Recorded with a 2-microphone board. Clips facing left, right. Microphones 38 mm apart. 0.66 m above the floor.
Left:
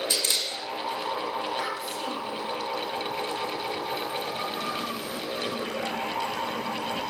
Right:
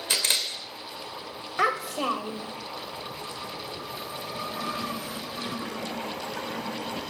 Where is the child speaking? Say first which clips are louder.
Right 5 dB; 80° right, 1.8 m.